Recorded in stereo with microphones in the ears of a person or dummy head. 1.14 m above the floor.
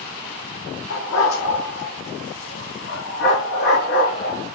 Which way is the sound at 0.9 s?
75° left (ahead or behind).